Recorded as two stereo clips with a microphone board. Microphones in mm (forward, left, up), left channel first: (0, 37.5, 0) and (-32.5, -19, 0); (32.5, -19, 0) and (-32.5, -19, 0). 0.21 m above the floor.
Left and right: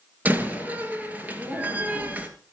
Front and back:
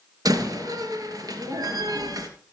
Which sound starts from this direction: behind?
A door slam, at 0.2 s.